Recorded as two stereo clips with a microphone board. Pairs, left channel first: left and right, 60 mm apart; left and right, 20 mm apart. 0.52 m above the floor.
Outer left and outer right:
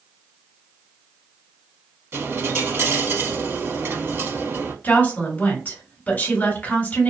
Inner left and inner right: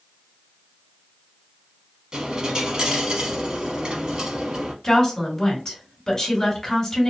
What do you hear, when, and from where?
2.1 s a dropped coin: 40° right (ahead or behind), 0.9 m
4.8 s a woman speaking: 30° left (ahead or behind), 1.6 m